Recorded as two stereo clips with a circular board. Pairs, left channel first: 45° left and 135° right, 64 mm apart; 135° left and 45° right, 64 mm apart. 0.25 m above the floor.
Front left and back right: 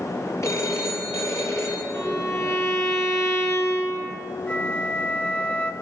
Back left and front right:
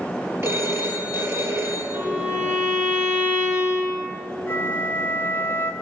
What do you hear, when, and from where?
0.4 s a phone ringing: straight ahead, 3.5 m
1.9 s a violin: 10° left, 3.5 m
4.5 s a flute: 95° left, 1.0 m